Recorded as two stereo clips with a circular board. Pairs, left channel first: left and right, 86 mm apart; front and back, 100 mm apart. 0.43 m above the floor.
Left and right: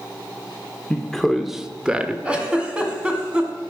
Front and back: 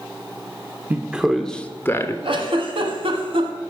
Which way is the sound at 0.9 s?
155° left.